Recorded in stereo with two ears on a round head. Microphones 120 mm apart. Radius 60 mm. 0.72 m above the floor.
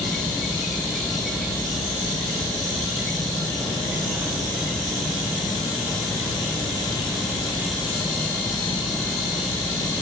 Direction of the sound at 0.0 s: Centre (ahead or behind).